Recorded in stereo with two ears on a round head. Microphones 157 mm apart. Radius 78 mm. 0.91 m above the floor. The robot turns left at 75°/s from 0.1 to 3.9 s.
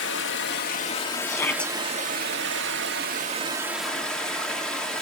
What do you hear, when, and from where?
0.0 s running water: 100° left, 1.6 m; by 5.0 s 175° left, 1.6 m
1.3 s a shout: 35° left, 0.7 m; by 1.7 s straight ahead, 0.7 m